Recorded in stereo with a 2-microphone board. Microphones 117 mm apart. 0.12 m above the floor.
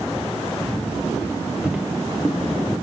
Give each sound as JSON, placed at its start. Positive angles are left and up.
{"t": 1.6, "sound": "footsteps", "side_deg": -10, "distance_m": 1.6}